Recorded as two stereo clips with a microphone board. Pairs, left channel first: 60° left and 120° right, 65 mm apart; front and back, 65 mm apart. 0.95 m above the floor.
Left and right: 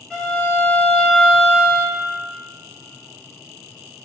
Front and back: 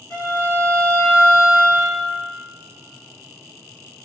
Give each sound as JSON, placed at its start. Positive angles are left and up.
{"t": 0.1, "sound": "a violin", "azimuth_deg": -5, "distance_m": 1.8}